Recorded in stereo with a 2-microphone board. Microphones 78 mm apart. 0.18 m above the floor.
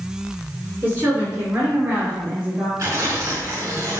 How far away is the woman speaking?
About 2.5 m.